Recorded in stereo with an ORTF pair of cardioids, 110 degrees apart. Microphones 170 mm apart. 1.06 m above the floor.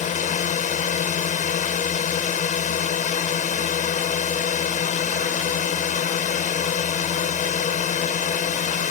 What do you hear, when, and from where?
0.0 s a drone: 50° left